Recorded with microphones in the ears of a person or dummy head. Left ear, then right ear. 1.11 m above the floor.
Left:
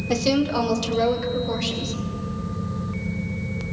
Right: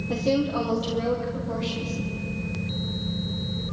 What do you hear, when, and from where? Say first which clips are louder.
0.1 s a woman speaking: left 3 dB; 65° left (ahead or behind), 2 m; by 1.9 s 85° left, 4.5 m